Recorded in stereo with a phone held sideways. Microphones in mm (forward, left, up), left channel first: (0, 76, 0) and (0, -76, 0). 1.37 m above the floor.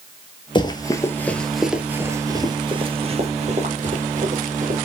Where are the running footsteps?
30° left (ahead or behind), 1.6 m; by 4.9 s 60° right (ahead or behind), 3 m.